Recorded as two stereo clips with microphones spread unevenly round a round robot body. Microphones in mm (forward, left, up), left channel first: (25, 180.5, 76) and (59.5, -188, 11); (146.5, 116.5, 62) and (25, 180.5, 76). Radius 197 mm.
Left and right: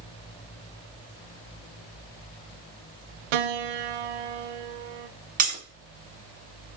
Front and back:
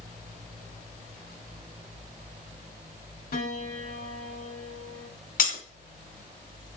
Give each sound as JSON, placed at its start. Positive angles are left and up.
{"t": 3.3, "sound": "a piano", "azimuth_deg": -70, "distance_m": 0.6}
{"t": 5.4, "sound": "breaking glass", "azimuth_deg": -15, "distance_m": 2.5}